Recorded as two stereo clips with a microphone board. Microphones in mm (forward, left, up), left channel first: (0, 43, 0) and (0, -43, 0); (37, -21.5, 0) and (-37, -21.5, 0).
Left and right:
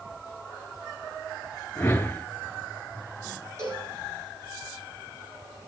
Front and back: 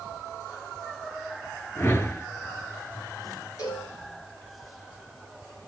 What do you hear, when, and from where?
1.8 s a whoosh: 40° left, 0.9 m
3.6 s a cowbell: 35° right, 9 m